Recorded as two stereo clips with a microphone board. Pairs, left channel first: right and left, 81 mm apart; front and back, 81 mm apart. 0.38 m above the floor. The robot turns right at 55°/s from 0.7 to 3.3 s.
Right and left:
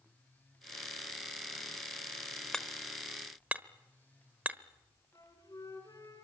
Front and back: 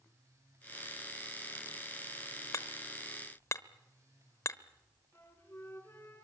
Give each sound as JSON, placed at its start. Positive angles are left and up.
{"t": 2.5, "sound": "hammering", "azimuth_deg": -15, "distance_m": 1.0}
{"t": 5.1, "sound": "a flute", "azimuth_deg": -60, "distance_m": 5.0}